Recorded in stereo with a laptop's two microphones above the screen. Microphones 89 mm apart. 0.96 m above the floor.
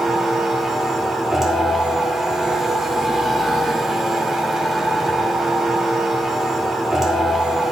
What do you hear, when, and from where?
0.0 s a machine running: 5° right (ahead or behind), 2 m